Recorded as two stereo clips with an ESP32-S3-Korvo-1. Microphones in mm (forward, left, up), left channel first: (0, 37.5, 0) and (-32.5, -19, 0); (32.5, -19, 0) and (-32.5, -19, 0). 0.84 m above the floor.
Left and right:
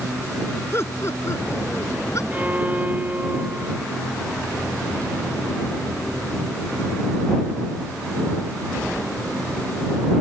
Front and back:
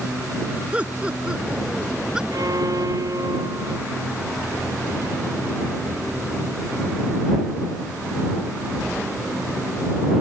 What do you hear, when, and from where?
0.7 s laughter: 110° left; by 2.2 s 100° left
2.3 s a violin: 175° left